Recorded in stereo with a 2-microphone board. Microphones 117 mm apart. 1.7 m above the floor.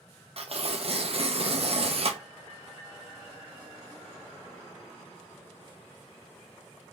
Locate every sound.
0.4 s tearing paper: 55° right (ahead or behind), 0.7 m